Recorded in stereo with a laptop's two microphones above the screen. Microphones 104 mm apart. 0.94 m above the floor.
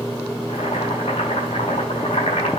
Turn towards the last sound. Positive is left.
turn(degrees=85)